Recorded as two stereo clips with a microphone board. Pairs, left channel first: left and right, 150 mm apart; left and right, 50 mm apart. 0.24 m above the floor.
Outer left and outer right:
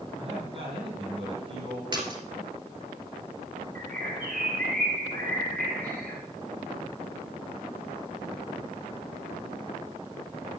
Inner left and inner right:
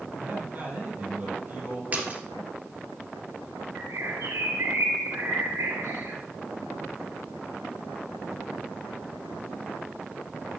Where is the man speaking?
35° right (ahead or behind), 6.5 m.